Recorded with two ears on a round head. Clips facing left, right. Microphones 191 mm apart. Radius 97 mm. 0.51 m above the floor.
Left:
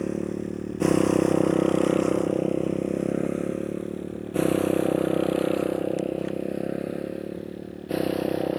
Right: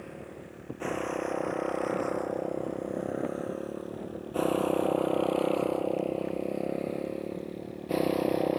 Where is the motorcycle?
65° left (ahead or behind); by 8.6 s 5° left (ahead or behind).